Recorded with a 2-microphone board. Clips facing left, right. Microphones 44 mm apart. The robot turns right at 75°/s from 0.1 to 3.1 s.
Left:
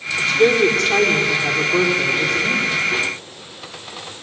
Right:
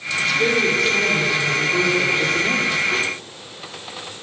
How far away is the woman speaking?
About 5 m.